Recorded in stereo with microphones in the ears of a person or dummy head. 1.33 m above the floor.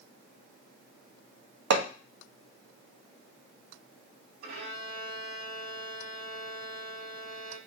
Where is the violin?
55° right (ahead or behind), 2 m.